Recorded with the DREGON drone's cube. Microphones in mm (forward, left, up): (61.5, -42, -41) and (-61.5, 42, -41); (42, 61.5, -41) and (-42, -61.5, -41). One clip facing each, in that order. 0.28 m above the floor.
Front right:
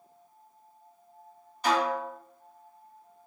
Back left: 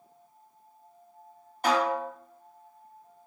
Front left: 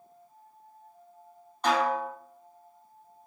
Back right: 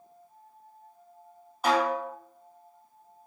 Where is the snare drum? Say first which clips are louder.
Back left 1 dB, back right 1 dB; 150° left, 2.5 m.